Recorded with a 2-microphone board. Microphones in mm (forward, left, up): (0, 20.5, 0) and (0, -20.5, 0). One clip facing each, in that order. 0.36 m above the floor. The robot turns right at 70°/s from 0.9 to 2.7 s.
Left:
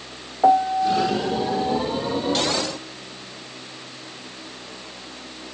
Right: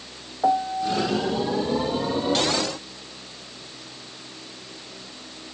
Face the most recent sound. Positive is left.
turn(degrees=145)